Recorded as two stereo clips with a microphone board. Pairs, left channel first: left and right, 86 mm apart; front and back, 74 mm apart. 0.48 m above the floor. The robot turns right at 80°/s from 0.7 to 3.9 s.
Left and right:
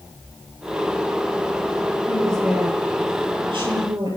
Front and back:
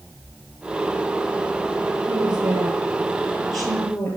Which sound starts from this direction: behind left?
A woman speaking, at 2.1 s.